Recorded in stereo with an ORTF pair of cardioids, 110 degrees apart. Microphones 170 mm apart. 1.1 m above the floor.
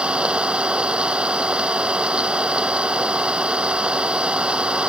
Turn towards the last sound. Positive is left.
turn(degrees=-5)